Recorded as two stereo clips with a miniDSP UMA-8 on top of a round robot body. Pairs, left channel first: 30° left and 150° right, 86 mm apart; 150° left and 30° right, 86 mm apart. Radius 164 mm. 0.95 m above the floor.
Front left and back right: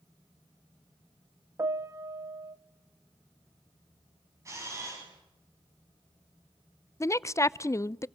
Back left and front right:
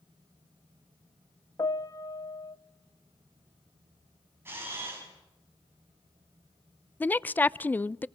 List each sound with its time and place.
1.6 s a piano: 175° left, 1.1 m
4.5 s a camera shutter: 95° right, 6 m
7.0 s a woman speaking: 80° left, 0.6 m